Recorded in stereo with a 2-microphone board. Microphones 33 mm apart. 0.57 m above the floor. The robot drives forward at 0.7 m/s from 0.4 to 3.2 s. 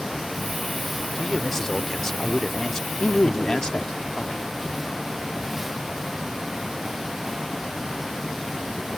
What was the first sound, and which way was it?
A man speaking, 10° left (ahead or behind).